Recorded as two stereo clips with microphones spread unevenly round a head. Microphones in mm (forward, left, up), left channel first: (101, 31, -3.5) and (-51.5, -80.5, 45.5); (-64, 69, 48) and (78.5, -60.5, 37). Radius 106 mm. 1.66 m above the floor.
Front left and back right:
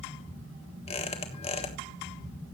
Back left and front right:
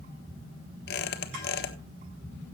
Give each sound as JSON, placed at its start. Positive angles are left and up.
{"t": 0.9, "sound": "a squeak", "azimuth_deg": 105, "distance_m": 1.4}